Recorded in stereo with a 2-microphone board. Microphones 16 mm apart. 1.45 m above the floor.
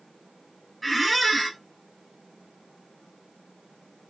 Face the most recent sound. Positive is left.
turn(degrees=0)  # may be behind; listen again after turning